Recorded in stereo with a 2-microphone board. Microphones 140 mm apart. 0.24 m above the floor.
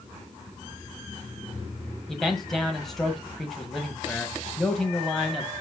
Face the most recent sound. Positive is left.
turn(degrees=0)  # may be behind; listen again after turning